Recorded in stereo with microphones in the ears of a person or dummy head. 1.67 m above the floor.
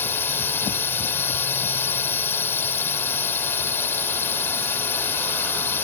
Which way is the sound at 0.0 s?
15° left (ahead or behind).